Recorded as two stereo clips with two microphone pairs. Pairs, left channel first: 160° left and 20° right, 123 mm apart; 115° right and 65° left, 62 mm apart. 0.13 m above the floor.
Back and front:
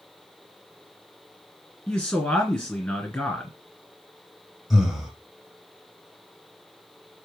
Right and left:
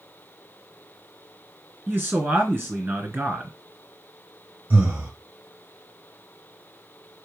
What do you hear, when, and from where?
1.9 s a man speaking: 80° left, 1.9 m
4.7 s breathing: 65° left, 1.6 m